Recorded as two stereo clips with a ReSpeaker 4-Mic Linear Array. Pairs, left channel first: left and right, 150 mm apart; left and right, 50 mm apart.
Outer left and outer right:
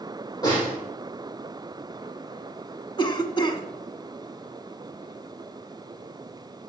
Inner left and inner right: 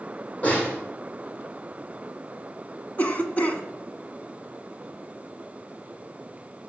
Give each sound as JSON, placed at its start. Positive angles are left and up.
{"t": 0.4, "sound": "a snare drum", "side_deg": 25, "distance_m": 7.0}
{"t": 3.0, "sound": "a cough", "side_deg": 30, "distance_m": 1.3}